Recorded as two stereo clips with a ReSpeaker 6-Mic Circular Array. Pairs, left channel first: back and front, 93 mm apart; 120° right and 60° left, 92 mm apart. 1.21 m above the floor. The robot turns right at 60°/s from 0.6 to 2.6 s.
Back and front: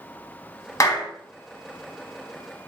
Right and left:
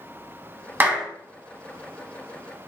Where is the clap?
125° left, 0.9 m; by 1.1 s 145° left, 0.9 m.